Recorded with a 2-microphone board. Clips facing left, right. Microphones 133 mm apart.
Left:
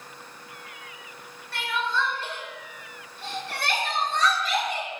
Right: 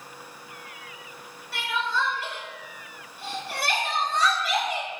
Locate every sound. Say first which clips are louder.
1.5 s crying: even; 10° right (ahead or behind), 0.9 m